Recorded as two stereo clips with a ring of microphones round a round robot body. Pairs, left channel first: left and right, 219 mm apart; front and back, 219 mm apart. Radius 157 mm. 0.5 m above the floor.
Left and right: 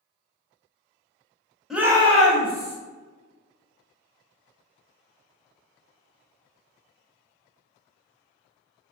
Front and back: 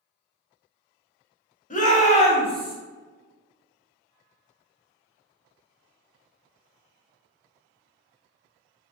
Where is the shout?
5° right, 1.1 m; by 2.8 s 65° right, 1.7 m.